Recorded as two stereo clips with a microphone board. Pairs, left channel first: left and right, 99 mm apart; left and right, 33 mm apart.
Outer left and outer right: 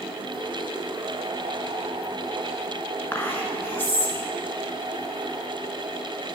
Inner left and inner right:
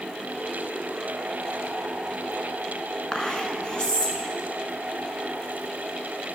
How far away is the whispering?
About 1.1 m.